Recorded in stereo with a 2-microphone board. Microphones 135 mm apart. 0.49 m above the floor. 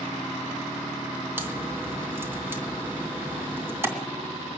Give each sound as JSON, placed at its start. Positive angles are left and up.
{"t": 1.4, "sound": "a crack", "side_deg": -15, "distance_m": 2.5}